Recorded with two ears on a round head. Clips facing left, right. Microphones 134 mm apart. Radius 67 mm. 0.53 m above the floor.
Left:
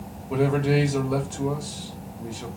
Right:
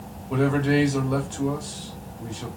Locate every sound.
0.3 s a man speaking: 5° left (ahead or behind), 1.3 m